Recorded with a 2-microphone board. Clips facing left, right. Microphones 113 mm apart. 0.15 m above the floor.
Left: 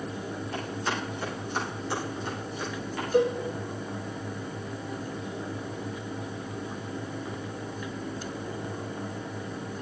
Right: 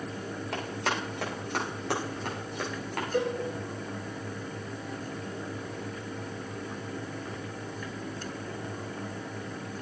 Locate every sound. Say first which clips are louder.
0.5 s running footsteps: right 1 dB; 80° right, 8 m; by 3.0 s 70° right (ahead or behind), 6 m
3.1 s a cowbell: left 6 dB; 20° left (ahead or behind), 3.5 m